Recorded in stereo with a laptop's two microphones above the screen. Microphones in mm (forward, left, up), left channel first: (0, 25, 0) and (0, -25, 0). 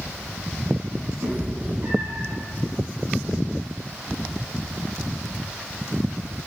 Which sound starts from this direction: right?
A cat meowing, at 1.2 s.